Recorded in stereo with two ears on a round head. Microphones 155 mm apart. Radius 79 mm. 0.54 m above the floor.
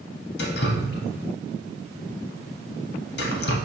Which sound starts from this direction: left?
Dripping, at 0.4 s.